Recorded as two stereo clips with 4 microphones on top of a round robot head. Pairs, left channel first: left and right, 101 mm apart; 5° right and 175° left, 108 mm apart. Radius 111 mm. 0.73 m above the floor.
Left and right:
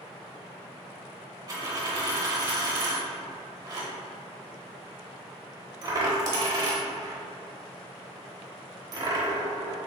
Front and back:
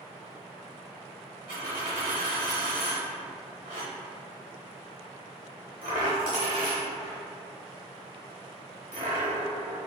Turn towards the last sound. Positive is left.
turn(degrees=-130)